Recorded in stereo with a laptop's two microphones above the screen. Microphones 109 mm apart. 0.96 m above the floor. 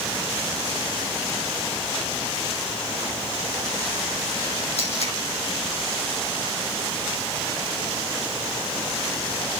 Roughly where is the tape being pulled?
Left.